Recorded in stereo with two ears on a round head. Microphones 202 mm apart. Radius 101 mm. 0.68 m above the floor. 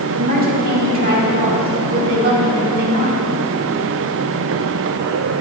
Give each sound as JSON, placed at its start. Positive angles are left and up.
{"t": 0.2, "sound": "a woman speaking", "side_deg": -40, "distance_m": 1.8}